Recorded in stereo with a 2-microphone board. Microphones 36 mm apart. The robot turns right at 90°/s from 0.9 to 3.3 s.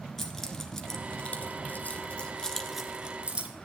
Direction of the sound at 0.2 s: 10° left (ahead or behind).